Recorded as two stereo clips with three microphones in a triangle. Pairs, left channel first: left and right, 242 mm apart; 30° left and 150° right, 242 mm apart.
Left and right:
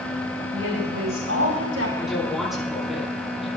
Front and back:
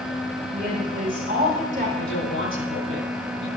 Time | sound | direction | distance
0.5 | a woman speaking | 95° right | 7 m
2.0 | a woman speaking | straight ahead | 8 m